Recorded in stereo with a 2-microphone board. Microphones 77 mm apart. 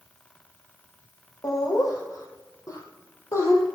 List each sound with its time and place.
1.4 s laughter: 50° left (ahead or behind), 3.5 m; by 3.6 s 40° left (ahead or behind), 2.5 m